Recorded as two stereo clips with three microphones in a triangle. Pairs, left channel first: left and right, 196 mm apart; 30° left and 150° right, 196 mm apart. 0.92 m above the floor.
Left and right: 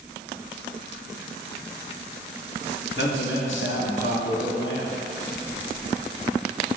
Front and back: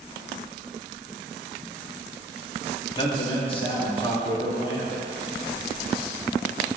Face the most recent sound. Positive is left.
turn(degrees=90)